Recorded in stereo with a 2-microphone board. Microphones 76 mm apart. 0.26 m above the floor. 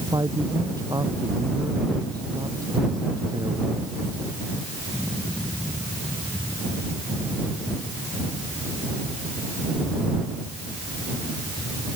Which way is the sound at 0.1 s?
60° right (ahead or behind).